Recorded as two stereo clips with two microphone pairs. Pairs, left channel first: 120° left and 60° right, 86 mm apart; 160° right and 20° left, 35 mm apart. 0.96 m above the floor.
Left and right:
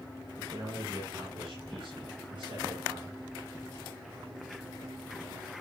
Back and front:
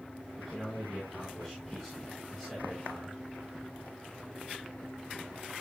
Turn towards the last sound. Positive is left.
turn(degrees=-75)